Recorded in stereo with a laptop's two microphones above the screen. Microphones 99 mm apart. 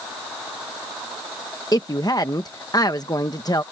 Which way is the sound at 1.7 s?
40° left (ahead or behind).